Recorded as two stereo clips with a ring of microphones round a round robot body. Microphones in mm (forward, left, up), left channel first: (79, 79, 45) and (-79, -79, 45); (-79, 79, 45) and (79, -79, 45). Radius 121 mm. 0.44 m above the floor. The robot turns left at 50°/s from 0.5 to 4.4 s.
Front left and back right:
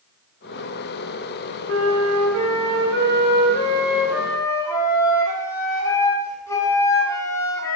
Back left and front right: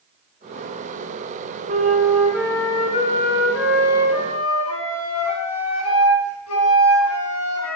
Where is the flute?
100° right, 4 m; by 7.8 s 125° left, 4 m.